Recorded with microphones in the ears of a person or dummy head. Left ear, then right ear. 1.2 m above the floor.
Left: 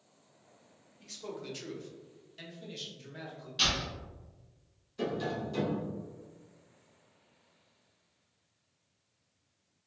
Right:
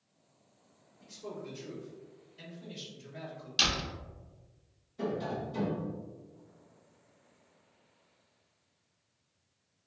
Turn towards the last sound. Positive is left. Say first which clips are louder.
# left 1 dB
turn(degrees=45)  # may be behind; listen again after turning